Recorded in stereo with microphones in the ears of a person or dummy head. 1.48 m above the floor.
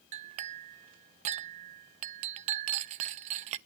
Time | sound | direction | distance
0.1 | a clink | 40° right (ahead or behind) | 0.6 m